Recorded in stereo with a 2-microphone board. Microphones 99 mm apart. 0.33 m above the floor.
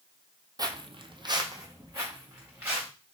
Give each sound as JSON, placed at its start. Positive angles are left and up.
{"t": 0.6, "sound": "footsteps", "side_deg": -40, "distance_m": 0.6}